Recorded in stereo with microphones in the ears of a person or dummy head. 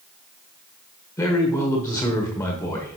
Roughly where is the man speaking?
Centre.